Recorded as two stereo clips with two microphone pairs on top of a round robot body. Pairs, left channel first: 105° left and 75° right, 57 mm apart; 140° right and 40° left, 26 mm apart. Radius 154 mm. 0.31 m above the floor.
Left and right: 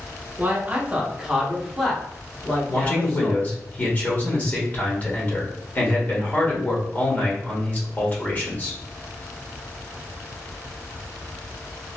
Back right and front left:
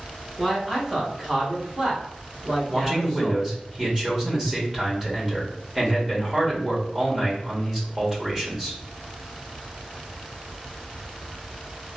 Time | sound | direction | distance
0.4 | a man speaking | 40° right | 1.2 m
2.7 | a man speaking | 115° left | 1.3 m